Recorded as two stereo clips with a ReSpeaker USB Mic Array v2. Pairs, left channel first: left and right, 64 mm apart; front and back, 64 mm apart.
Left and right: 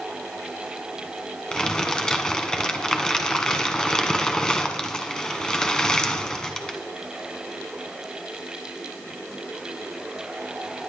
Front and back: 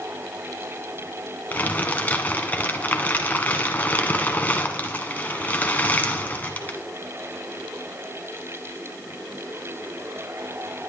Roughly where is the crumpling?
Ahead left.